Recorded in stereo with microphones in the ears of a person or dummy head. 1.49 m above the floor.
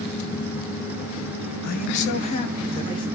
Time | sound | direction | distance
1.6 | a man speaking | 50° left (ahead or behind) | 1.5 m